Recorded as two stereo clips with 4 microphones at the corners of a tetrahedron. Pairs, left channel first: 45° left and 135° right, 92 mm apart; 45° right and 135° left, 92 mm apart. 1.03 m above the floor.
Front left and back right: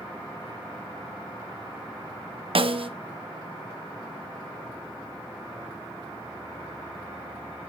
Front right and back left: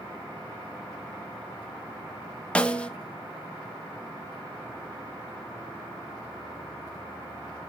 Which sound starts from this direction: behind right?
A snare drum, at 2.5 s.